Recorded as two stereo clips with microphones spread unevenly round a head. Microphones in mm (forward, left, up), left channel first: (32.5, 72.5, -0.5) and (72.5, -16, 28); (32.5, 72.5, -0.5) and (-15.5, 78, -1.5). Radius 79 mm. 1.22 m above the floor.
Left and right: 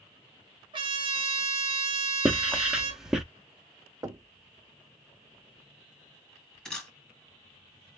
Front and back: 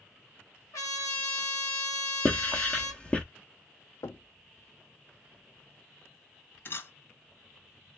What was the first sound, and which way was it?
A trumpet, 25° right.